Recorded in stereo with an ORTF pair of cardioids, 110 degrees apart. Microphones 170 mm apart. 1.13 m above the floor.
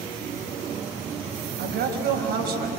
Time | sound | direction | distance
1.6 | a man speaking | 70° right | 5.5 m